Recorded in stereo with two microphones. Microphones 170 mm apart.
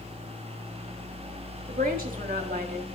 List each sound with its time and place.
1.7 s a woman speaking: 55° right (ahead or behind), 1.6 m